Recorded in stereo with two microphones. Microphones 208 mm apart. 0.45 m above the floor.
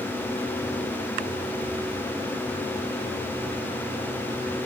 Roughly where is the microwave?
I don't hear a microwave.